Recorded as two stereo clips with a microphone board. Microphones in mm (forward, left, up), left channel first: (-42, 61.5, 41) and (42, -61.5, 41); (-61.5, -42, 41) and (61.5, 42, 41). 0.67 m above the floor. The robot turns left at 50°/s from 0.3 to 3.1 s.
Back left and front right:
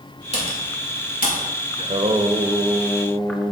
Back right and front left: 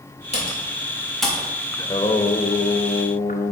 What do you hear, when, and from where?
0.3 s typing on a keyboard: 170° left, 2.5 m; by 1.5 s 115° left, 2.5 m
1.8 s singing: 85° right, 0.7 m; by 3.5 s 150° right, 0.7 m